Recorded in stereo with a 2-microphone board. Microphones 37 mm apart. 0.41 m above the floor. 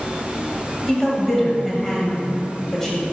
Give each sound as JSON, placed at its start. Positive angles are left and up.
{"t": 0.9, "sound": "a woman speaking", "side_deg": 10, "distance_m": 1.6}